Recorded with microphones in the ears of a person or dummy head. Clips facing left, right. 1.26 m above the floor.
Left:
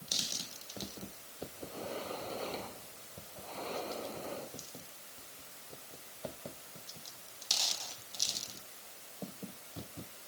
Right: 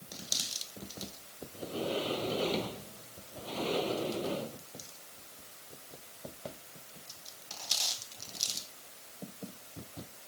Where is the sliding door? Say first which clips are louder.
Right 8 dB; 40° right (ahead or behind).